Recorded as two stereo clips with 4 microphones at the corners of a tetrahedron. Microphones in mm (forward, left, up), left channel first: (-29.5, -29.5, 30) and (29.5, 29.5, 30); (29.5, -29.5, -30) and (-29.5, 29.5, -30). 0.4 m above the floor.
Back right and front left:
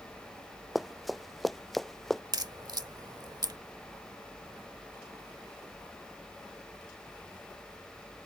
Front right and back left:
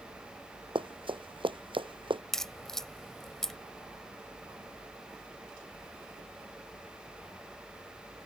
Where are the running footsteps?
135° left; by 2.2 s 140° left.